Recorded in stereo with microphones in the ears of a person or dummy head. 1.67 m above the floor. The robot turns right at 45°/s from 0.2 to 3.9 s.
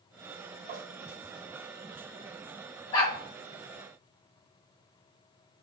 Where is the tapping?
20° right (ahead or behind), 1.3 m.